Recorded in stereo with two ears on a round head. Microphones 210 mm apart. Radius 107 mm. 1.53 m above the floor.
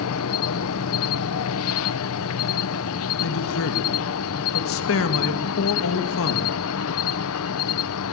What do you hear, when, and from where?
0.0 s an insect: 60° left (ahead or behind), 0.8 m
3.2 s a man speaking: 70° left (ahead or behind), 2.5 m